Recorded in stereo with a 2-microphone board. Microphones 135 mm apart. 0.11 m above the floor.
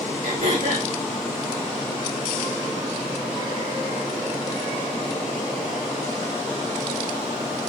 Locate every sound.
0.2 s throat clearing: 70° right (ahead or behind), 4.5 m